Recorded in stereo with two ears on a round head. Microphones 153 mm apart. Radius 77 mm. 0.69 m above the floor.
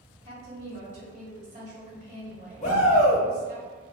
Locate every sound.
0.2 s a woman speaking: 40° right (ahead or behind), 1.8 m
2.6 s a shout: 40° left (ahead or behind), 1.1 m